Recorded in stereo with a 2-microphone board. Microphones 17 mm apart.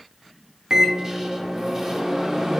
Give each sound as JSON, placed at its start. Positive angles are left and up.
{"t": 0.7, "sound": "a microwave", "side_deg": -40, "distance_m": 0.8}